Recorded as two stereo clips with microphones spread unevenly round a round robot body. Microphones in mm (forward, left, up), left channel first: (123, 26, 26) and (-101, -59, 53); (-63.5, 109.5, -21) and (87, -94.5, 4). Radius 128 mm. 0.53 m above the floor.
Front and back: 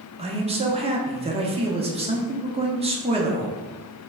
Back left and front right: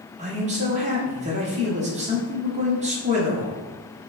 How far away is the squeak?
No squeak in this recording.